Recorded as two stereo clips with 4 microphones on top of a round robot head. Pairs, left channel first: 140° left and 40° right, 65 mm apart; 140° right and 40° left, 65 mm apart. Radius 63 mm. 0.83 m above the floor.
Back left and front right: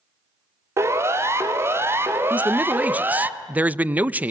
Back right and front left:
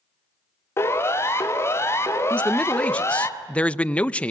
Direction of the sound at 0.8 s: 85° right.